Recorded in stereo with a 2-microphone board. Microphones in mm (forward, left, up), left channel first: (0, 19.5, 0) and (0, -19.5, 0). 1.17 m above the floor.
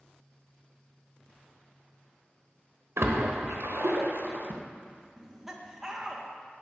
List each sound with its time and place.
3.0 s a splash: 80° right, 0.9 m
5.2 s laughter: 5° right (ahead or behind), 0.7 m